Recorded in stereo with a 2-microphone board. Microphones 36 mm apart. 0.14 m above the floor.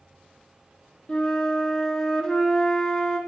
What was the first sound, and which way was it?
A flute, 20° left (ahead or behind).